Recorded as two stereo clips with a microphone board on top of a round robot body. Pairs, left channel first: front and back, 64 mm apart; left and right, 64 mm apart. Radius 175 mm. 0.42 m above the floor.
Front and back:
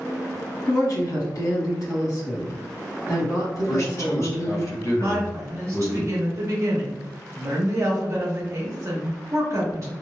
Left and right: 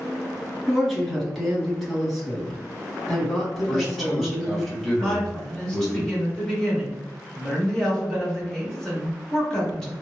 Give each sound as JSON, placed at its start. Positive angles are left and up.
{"t": 0.7, "sound": "a woman speaking", "azimuth_deg": 5, "distance_m": 1.8}
{"t": 3.6, "sound": "a man speaking", "azimuth_deg": 0, "distance_m": 1.6}
{"t": 5.0, "sound": "a woman speaking", "azimuth_deg": 170, "distance_m": 1.1}